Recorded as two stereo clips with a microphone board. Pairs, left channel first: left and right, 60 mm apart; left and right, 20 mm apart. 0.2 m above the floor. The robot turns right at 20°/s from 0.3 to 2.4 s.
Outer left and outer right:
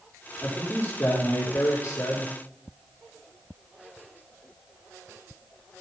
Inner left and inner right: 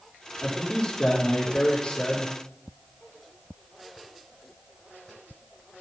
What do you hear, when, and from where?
0.4 s a man speaking: 20° left, 8.5 m; by 2.3 s 60° left, 8.5 m